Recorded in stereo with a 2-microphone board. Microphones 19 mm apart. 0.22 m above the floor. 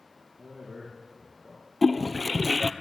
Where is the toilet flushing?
Centre (ahead or behind), 0.9 m.